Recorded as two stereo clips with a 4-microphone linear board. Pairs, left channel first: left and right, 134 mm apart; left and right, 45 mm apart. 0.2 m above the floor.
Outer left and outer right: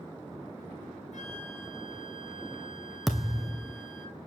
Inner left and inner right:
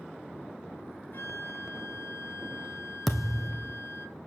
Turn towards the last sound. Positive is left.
turn(degrees=0)  # may be behind; listen again after turning